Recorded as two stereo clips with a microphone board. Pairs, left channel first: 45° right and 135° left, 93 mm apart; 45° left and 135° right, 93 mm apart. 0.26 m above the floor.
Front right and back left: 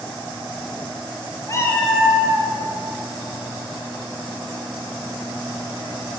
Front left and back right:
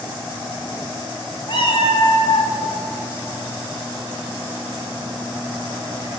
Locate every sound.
1.5 s a cat meowing: 10° left, 1.1 m; by 2.5 s 90° left, 1.2 m